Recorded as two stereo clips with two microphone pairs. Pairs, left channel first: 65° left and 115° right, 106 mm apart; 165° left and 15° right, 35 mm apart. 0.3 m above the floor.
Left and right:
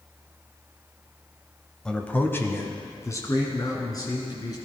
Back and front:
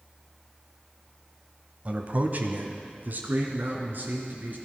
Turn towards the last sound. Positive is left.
turn(degrees=15)